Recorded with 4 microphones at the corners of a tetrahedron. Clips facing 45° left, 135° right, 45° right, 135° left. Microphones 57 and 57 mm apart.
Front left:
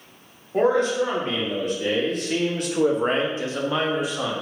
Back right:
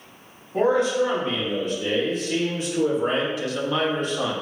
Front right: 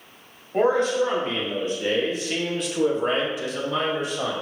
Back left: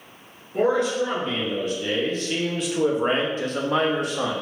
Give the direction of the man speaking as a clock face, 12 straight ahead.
12 o'clock.